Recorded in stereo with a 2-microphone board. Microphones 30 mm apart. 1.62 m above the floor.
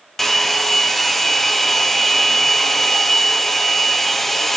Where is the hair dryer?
10° left (ahead or behind), 1.1 m.